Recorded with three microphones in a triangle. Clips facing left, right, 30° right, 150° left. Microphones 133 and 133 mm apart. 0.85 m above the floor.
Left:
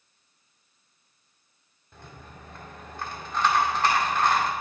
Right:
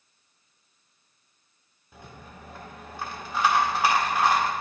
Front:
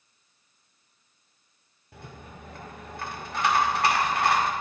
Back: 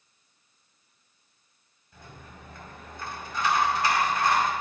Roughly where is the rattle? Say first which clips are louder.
Right 1 dB, front 3 dB; ahead.